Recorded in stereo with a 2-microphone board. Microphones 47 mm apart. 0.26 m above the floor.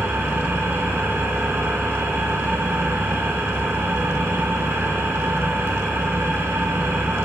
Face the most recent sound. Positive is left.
turn(degrees=-60)  # may be behind; listen again after turning